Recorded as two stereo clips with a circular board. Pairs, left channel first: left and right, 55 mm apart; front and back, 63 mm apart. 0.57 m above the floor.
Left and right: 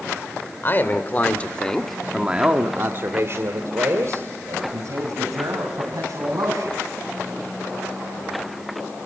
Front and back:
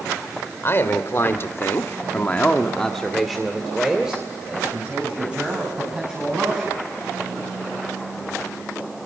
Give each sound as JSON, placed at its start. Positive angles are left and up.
{"t": 0.6, "sound": "a man speaking", "azimuth_deg": 45, "distance_m": 2.5}